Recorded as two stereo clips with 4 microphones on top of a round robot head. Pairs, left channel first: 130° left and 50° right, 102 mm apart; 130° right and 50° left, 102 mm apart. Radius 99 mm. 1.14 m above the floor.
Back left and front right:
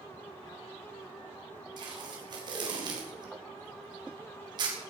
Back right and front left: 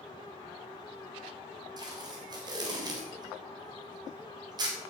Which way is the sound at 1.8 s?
Straight ahead.